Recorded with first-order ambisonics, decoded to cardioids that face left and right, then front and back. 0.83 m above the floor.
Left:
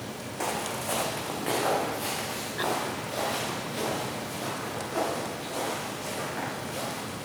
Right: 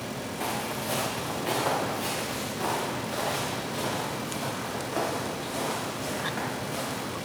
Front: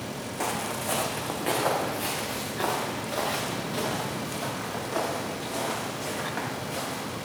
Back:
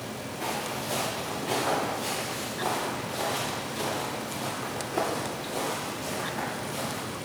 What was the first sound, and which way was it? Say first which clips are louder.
Footsteps: left 1 dB, front 2 dB; 35° left.